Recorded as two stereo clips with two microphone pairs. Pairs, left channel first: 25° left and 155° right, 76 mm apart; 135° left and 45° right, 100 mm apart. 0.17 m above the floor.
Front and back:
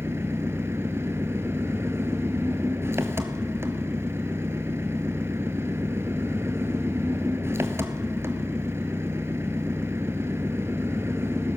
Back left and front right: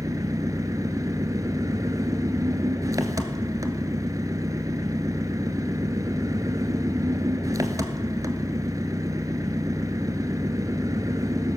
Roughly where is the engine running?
Right.